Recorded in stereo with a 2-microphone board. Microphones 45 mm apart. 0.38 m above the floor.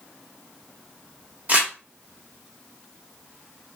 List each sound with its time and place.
1.5 s crumpling: 35° right (ahead or behind), 1.0 m